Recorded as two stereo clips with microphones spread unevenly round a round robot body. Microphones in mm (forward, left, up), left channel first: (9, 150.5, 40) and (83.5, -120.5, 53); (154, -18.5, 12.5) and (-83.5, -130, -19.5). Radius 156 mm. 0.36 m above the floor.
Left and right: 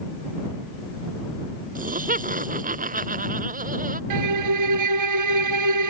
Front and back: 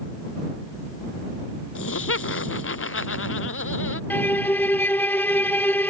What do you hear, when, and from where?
1.8 s laughter: 15° right
4.1 s a violin: 55° right